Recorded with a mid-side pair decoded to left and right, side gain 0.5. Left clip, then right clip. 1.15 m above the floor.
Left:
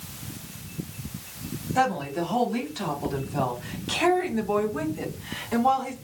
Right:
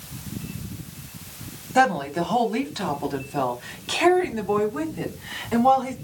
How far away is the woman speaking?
About 3 m.